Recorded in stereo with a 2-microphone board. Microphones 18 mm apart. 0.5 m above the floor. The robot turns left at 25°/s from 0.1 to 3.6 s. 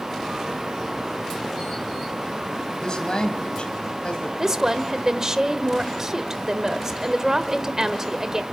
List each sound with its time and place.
2.8 s a man speaking: 40° left (ahead or behind), 3.5 m; by 4.3 s 55° left (ahead or behind), 3.5 m
4.4 s a woman speaking: 30° right (ahead or behind), 1.5 m